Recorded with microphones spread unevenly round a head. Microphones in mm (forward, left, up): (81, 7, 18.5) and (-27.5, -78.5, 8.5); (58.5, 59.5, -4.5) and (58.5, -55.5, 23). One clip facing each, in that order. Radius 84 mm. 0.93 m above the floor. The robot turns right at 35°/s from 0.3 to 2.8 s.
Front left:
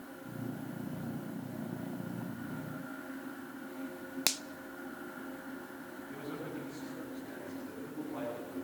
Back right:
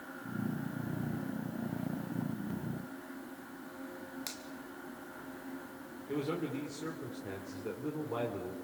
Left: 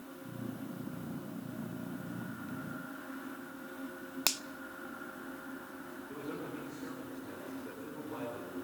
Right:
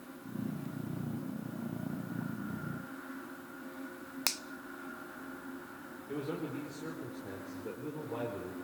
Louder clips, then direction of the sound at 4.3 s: Front left 6 dB, left 2 dB; 20° left.